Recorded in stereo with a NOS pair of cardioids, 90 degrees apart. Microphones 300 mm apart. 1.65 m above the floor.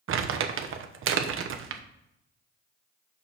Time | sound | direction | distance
0.1 | crumpling | 50° right | 1.0 m